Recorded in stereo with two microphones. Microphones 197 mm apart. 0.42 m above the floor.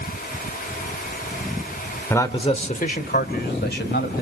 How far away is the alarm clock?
I don't hear an alarm clock.